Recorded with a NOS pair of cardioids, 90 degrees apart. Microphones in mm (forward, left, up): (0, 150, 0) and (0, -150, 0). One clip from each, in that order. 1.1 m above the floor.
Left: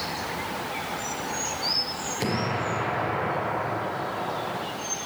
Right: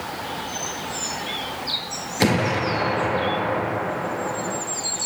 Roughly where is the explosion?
Ahead right.